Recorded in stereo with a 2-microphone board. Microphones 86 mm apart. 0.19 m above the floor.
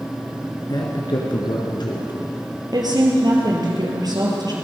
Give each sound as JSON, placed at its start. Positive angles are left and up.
{"t": 0.7, "sound": "a man speaking", "side_deg": 60, "distance_m": 2.0}
{"t": 2.7, "sound": "a woman speaking", "side_deg": -50, "distance_m": 3.5}